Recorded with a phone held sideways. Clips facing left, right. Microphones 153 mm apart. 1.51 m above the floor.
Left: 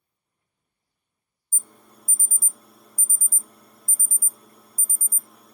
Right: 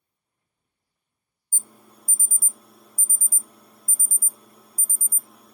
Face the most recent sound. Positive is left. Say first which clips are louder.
# right 1 dB
turn(degrees=-5)  # may be behind; listen again after turning